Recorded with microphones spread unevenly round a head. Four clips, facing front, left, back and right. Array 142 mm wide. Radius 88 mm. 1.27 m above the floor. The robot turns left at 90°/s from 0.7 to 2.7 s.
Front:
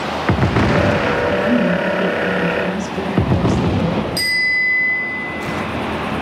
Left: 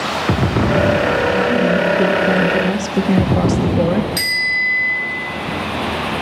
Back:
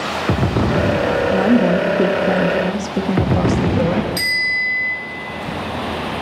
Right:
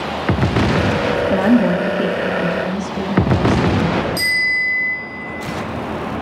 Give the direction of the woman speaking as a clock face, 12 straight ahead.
4 o'clock.